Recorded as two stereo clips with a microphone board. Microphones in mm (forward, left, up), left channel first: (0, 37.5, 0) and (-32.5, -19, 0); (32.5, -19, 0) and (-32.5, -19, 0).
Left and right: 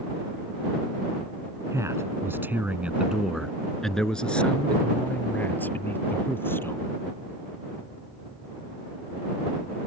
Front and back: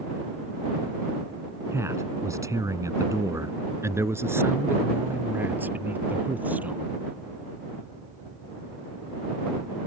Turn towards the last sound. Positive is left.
turn(degrees=115)